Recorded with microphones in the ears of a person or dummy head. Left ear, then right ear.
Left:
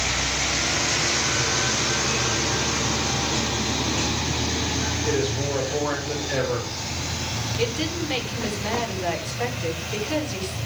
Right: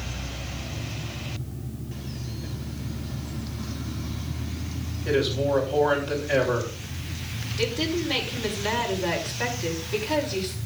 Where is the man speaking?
Centre (ahead or behind), 5.5 m.